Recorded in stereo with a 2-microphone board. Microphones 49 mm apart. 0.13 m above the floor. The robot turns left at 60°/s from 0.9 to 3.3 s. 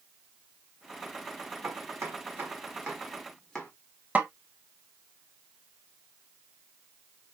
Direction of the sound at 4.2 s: 30° right (ahead or behind).